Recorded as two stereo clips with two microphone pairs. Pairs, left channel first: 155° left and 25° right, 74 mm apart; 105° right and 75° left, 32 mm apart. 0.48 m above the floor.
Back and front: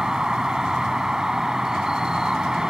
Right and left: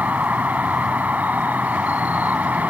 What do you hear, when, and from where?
0.0 s an insect: 55° left